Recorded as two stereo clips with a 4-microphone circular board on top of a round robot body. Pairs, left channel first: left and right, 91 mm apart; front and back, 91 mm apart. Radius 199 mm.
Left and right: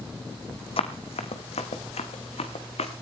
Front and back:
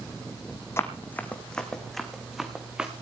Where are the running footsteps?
65° left, 1.5 m; by 2.9 s 100° left, 2.5 m.